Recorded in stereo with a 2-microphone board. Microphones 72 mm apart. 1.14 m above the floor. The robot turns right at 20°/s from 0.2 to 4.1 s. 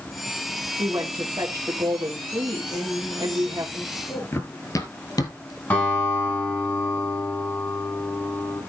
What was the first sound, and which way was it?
A woman speaking, 110° right.